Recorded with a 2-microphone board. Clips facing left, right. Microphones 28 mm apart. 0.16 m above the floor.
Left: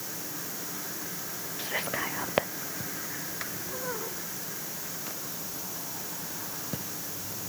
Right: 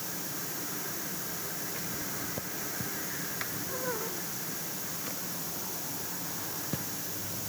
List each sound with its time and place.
1.6 s whispering: 85° left